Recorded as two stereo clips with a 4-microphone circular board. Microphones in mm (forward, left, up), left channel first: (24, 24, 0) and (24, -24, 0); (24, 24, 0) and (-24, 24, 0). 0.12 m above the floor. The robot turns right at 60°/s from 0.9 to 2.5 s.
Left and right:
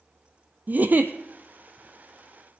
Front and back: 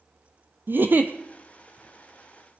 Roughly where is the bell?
No bell in this recording.